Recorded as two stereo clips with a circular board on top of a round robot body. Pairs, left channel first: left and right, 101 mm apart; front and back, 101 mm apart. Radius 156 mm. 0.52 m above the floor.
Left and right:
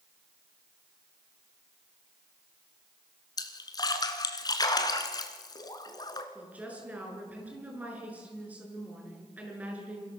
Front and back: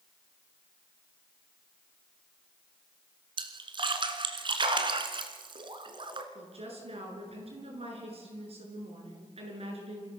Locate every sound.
3.4 s a splash: 140° left, 2 m
6.3 s a woman speaking: 165° right, 8 m